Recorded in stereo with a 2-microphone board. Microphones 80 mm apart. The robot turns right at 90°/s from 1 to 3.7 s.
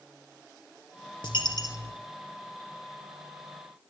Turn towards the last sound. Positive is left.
turn(degrees=-45)